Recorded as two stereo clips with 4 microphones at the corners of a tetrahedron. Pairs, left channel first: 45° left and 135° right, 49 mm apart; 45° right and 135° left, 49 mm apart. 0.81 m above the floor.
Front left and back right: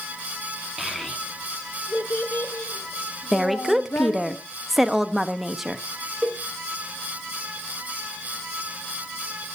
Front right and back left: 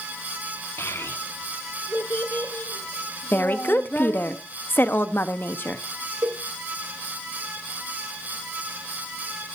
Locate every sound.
0.8 s a child speaking: 50° right, 1.4 m; by 4.3 s 10° left, 5.5 m
3.3 s a woman speaking: 50° right, 1.0 m
6.2 s a cowbell: 150° left, 2 m